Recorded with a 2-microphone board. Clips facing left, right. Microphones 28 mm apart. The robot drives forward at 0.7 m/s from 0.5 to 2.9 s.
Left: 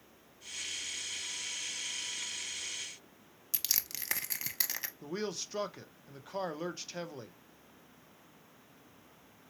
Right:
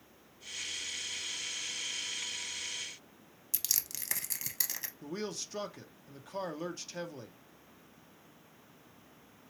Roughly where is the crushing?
Left.